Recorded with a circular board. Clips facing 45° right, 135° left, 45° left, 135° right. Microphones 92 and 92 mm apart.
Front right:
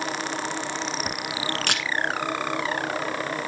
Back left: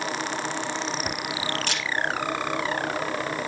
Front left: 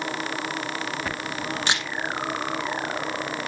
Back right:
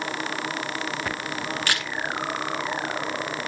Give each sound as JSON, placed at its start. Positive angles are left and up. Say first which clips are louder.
{"t": 1.7, "sound": "a camera shutter", "louder": "front right 2 dB, front left 2 dB", "azimuth_deg": -25, "distance_m": 1.2}